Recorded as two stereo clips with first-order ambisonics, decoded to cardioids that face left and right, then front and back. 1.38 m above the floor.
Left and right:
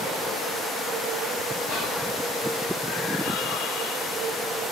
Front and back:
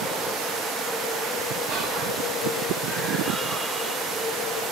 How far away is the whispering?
About 1.4 m.